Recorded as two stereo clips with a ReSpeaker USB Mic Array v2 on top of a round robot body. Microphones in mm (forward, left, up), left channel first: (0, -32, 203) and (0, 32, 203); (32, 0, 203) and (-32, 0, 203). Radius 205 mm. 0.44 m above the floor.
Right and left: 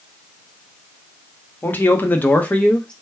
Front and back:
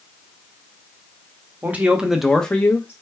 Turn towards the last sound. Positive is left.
turn(degrees=-20)